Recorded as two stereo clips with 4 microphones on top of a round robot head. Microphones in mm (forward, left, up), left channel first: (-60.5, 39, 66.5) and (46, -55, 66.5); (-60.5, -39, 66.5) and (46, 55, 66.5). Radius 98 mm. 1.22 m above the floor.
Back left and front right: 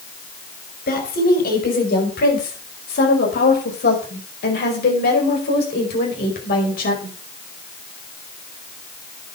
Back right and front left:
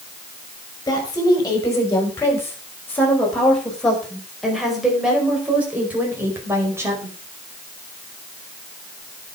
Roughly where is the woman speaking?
Behind left.